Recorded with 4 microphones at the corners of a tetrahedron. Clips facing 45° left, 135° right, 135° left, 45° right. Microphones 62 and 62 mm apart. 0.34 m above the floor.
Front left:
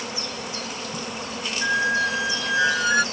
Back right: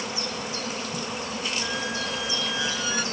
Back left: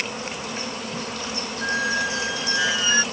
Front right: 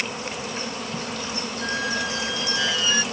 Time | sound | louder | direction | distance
1.6 | a squeak | front left 8 dB, back left 4 dB | 65° left | ?